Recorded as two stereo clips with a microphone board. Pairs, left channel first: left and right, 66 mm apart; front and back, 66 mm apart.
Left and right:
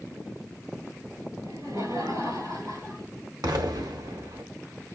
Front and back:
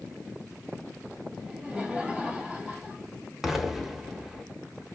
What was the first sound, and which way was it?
Laughter, 105° right.